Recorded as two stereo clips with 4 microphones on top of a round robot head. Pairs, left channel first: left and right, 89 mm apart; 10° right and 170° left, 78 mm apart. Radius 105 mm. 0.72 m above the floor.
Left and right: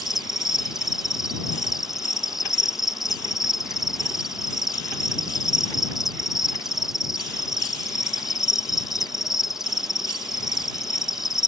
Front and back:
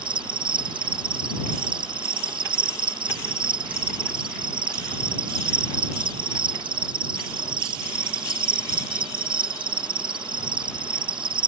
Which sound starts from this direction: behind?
An insect, at 0.0 s.